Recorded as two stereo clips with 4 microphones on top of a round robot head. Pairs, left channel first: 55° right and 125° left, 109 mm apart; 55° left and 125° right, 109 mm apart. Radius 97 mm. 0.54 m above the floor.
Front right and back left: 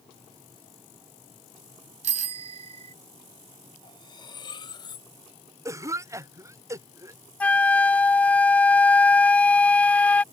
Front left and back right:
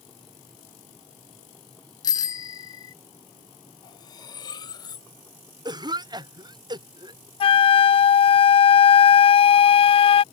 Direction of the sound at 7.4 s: 25° left.